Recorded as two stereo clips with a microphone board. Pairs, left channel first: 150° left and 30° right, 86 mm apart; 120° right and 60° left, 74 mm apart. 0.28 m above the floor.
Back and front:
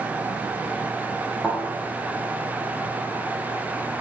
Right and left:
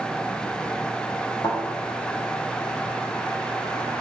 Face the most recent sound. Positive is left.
turn(degrees=-135)